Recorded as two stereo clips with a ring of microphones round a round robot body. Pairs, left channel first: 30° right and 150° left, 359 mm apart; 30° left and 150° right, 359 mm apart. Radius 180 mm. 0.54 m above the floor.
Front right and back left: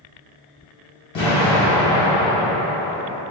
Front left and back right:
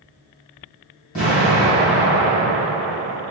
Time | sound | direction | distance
1.1 | an explosion | 40° right | 1.6 m